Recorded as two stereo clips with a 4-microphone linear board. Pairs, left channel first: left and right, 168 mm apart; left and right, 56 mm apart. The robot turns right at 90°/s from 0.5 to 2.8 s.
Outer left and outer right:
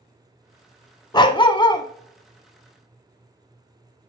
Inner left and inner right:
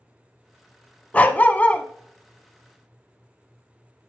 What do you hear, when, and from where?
1.1 s a dog barking: 25° left (ahead or behind), 0.6 m